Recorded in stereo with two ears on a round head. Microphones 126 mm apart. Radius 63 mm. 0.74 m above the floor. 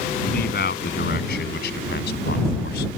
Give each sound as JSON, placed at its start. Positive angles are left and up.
{"t": 0.2, "sound": "a man speaking", "side_deg": 75}